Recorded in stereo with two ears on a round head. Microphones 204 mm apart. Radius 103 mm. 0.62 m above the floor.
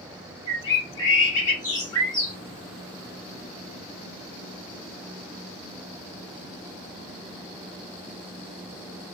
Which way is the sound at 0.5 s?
20° left (ahead or behind).